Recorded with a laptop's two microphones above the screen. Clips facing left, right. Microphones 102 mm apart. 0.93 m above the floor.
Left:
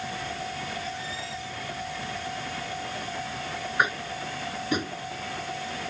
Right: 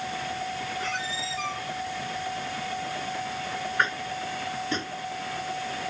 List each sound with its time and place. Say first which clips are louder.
0.8 s a squeak: right 3 dB; 85° right
3.8 s tapping: left 2 dB; 15° left (ahead or behind)